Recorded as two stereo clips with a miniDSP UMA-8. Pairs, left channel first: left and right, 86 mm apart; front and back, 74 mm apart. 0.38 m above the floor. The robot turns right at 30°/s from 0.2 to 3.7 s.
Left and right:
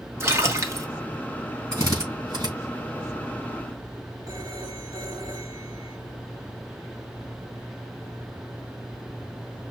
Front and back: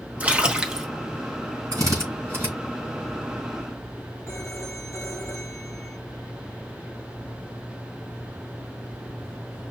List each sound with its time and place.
0.2 s a splash: 120° right, 1.0 m; by 0.9 s 100° right, 1.0 m
1.7 s a drill: 140° right, 3.5 m; by 2.5 s 120° right, 3.5 m
4.3 s a phone ringing: 55° right, 3 m